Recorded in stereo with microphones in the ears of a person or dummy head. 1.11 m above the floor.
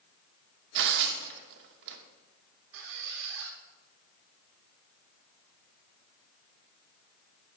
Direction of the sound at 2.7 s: 65° right (ahead or behind).